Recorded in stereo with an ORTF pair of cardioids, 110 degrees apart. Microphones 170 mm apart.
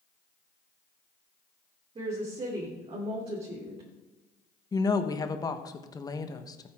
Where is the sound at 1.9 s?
35° right, 3 m.